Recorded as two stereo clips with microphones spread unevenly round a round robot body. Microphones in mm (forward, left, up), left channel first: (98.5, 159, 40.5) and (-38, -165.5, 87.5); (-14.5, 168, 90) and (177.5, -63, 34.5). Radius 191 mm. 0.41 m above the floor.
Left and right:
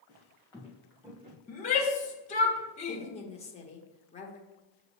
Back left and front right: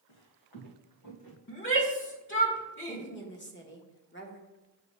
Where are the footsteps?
140° left, 1.8 m; by 1.4 s straight behind, 1.2 m.